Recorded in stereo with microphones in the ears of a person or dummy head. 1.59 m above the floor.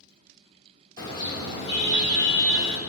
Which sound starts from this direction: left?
A car horn, at 1.0 s.